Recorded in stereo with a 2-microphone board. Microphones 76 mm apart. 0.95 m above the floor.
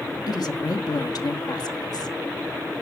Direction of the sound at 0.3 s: 65° left (ahead or behind).